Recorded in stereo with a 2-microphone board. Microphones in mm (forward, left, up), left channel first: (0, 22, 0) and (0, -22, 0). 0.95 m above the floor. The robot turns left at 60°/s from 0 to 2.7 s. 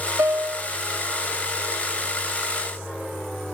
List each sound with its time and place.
0.2 s a piano: 70° right (ahead or behind); by 0.7 s 45° right (ahead or behind)